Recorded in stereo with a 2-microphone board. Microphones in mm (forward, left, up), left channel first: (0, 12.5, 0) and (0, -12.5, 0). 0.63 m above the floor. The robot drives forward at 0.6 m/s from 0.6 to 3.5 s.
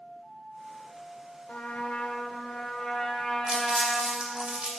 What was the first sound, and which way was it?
A trumpet, 70° left (ahead or behind).